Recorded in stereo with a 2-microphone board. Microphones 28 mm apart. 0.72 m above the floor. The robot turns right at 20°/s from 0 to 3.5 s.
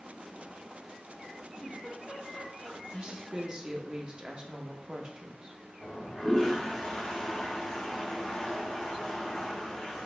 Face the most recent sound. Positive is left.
turn(degrees=10)  # may be behind; listen again after turning